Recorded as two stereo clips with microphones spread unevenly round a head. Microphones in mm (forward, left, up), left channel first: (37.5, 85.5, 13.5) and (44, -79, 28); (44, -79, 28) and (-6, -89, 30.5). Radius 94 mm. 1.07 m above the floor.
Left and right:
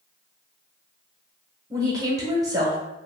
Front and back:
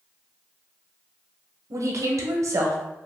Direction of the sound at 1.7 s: 160° right.